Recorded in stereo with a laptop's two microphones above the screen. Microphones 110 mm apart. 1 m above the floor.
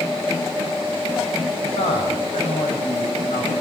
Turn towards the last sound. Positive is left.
turn(degrees=85)